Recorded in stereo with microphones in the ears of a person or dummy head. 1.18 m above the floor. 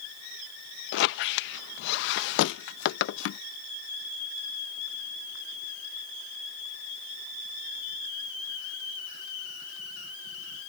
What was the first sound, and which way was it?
A squeak, 75° left (ahead or behind).